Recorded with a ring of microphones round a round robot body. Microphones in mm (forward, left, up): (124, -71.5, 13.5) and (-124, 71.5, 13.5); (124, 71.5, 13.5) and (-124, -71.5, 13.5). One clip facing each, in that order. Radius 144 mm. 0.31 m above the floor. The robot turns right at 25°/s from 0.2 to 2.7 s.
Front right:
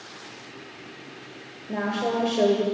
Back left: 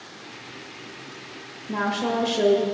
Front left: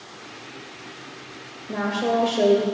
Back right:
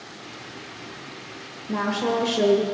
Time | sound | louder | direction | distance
1.7 | a woman speaking | even, even | 150° left | 0.9 m